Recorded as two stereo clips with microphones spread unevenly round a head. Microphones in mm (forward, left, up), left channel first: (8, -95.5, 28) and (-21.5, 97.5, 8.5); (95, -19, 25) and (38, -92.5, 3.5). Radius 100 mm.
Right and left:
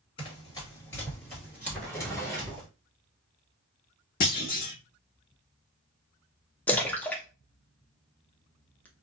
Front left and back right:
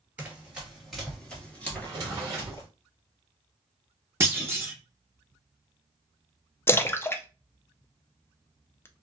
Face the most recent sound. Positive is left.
turn(degrees=-5)